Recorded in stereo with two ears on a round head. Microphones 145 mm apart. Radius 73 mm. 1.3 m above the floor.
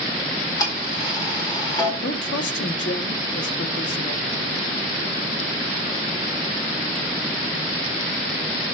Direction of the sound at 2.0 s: 80° left.